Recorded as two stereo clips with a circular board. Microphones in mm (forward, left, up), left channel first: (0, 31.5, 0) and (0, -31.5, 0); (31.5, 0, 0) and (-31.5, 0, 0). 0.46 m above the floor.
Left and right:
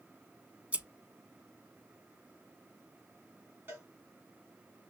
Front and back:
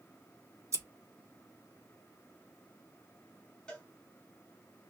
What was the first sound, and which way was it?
Scissors, 155° right.